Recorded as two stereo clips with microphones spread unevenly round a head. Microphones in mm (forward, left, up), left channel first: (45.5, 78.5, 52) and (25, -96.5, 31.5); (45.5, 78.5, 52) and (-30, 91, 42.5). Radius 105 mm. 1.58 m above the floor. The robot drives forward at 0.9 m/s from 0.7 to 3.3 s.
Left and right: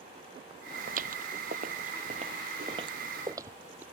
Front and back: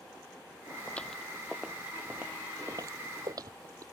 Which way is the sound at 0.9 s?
75° right.